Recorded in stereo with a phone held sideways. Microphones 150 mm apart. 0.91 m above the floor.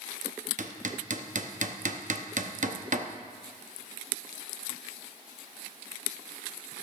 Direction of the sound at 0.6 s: 55° right (ahead or behind).